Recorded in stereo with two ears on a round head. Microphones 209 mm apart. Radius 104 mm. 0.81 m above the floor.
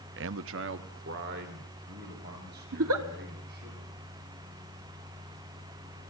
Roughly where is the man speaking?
Right.